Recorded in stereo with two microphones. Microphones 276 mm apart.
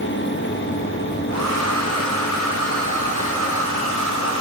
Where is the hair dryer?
65° right (ahead or behind), 4.5 m.